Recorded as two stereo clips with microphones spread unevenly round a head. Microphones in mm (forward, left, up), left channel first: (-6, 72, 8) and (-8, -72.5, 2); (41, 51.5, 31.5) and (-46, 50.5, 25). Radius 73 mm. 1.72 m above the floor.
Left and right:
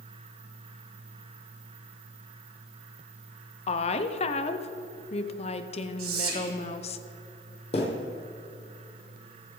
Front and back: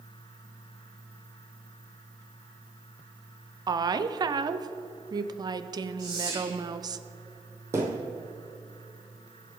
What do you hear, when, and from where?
3.7 s a woman speaking: 140° left, 1.0 m
6.0 s whispering: 115° right, 3.5 m
7.7 s a thud: 125° left, 3 m